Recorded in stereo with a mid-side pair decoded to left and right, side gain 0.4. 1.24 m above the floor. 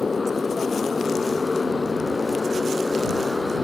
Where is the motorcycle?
25° left; by 3.6 s 20° left.